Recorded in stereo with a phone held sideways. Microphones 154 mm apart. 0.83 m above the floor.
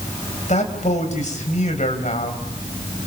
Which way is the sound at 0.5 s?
50° left (ahead or behind).